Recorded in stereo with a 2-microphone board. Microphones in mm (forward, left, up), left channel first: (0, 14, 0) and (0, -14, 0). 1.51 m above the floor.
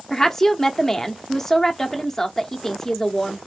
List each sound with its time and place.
0.1 s a woman speaking: 15° left (ahead or behind), 0.8 m